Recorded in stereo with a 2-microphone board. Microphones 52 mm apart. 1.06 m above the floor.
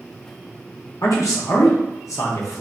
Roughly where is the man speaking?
Left.